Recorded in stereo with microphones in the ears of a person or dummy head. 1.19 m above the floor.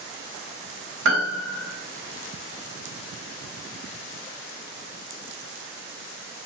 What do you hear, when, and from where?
1.1 s a piano: 70° right (ahead or behind), 0.7 m